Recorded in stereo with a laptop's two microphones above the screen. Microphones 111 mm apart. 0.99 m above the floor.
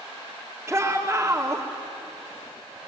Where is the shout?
20° right (ahead or behind), 2.5 m.